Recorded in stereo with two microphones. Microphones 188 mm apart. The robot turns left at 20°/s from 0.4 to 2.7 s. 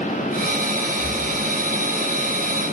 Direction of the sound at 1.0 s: 85° right.